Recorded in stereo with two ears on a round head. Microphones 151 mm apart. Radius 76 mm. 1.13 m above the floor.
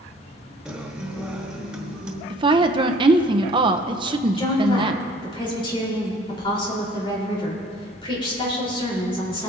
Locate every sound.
0.7 s a guitar: 5° right (ahead or behind), 1.0 m
2.3 s a woman speaking: 30° right (ahead or behind), 0.6 m
4.4 s a woman speaking: 30° left (ahead or behind), 3.5 m